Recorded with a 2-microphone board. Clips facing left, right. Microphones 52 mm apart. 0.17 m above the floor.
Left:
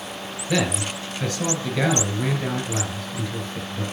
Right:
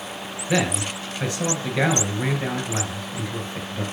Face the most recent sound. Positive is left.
turn(degrees=-20)  # may be behind; listen again after turning